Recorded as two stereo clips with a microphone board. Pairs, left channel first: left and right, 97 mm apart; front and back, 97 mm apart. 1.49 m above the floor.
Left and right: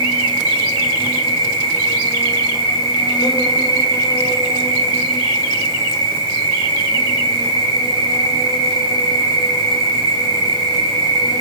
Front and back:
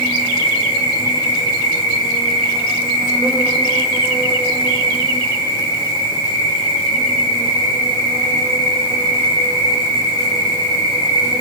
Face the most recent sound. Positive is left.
turn(degrees=140)